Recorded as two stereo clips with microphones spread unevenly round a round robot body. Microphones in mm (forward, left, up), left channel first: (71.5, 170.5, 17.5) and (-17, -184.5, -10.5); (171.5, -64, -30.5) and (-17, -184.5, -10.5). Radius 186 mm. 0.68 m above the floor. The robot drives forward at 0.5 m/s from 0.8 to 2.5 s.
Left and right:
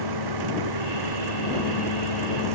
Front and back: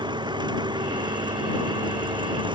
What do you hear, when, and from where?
0.0 s an engine running: 75° right; by 2.5 s 80° right